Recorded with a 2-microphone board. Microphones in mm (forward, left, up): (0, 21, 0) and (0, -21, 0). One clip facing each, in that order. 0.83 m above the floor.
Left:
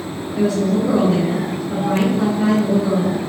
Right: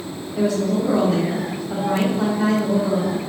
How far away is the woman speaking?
About 1.1 m.